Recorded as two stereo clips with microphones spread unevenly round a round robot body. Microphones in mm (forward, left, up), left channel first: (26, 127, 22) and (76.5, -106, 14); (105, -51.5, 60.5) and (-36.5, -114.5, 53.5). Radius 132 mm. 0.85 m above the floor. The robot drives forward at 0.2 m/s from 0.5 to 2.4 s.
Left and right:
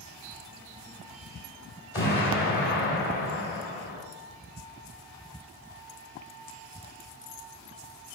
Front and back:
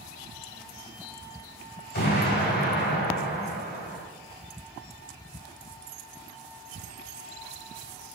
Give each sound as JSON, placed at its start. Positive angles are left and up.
{"t": 1.9, "sound": "an explosion", "azimuth_deg": 65, "distance_m": 3.0}